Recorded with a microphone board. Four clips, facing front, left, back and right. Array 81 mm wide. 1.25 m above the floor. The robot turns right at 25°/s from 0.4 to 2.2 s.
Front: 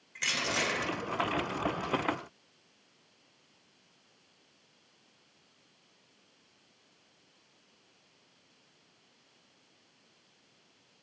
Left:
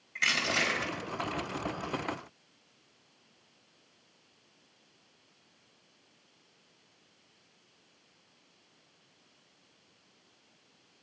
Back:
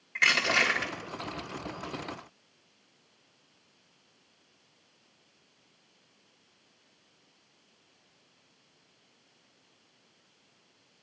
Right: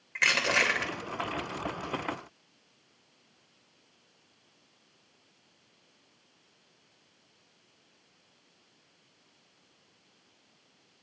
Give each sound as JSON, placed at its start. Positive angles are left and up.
{"t": 0.1, "sound": "crushing", "azimuth_deg": -120, "distance_m": 3.0}